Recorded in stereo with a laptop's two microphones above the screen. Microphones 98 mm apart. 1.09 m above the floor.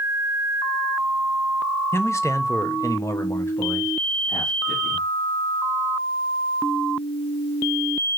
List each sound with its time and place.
1.9 s a man speaking: 25° left (ahead or behind), 0.8 m; by 5.1 s 15° left (ahead or behind), 1.6 m